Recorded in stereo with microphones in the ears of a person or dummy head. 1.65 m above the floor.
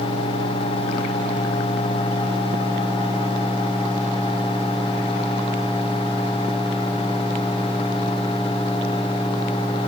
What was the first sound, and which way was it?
Only background noise.